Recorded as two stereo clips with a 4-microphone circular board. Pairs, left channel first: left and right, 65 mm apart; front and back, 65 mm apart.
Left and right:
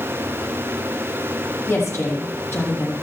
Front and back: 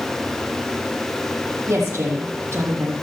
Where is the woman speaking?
135° left, 4.5 m.